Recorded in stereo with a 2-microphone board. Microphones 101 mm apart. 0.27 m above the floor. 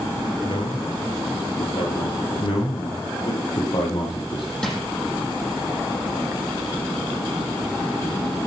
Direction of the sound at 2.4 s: 55° left (ahead or behind).